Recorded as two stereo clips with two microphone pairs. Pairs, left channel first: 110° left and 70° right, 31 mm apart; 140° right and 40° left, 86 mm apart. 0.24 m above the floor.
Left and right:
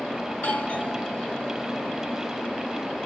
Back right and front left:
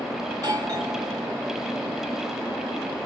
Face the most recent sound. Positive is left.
turn(degrees=80)